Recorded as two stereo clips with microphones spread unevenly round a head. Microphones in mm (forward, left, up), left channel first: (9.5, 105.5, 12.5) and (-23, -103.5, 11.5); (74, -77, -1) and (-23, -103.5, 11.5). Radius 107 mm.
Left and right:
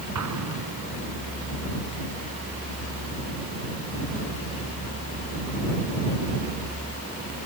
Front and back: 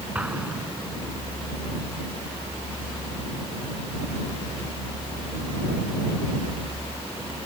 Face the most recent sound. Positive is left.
turn(degrees=-90)